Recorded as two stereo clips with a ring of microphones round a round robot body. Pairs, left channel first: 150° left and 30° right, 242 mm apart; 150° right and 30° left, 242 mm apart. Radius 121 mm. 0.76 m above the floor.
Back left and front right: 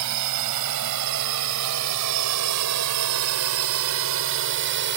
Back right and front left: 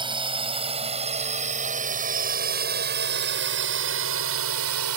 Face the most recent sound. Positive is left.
turn(degrees=10)